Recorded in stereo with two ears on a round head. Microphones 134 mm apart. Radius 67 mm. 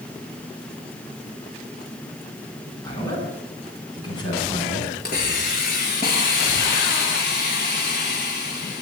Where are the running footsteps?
I don't hear running footsteps.